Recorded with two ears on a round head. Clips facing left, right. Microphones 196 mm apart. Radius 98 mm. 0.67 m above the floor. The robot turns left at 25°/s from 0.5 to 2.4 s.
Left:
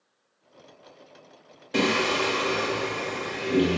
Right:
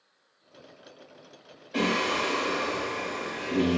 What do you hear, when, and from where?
1.7 s singing: 60° left (ahead or behind), 0.9 m; by 3.8 s 45° left (ahead or behind), 0.9 m